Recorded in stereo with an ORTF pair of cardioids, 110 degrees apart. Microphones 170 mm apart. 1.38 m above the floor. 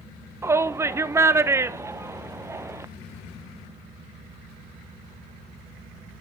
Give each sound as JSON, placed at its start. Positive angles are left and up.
{"t": 0.4, "sound": "a shout", "azimuth_deg": -15, "distance_m": 1.0}